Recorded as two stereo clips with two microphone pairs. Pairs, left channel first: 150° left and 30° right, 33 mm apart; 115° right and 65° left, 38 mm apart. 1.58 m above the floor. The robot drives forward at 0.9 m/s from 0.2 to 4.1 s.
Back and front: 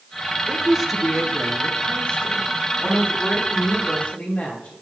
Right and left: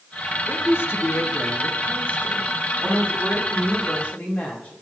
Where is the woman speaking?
85° right, 0.9 m; by 4.7 s 165° right, 3.5 m.